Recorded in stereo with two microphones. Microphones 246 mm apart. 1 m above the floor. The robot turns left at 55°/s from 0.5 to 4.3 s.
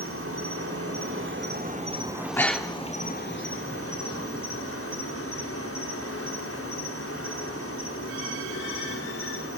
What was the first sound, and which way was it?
An insect, 75° right.